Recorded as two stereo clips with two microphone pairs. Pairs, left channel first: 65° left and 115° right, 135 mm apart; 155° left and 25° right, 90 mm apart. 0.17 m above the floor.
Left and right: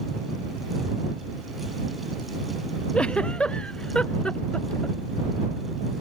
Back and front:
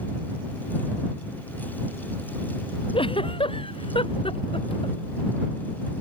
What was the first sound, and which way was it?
A giggle, 150° left.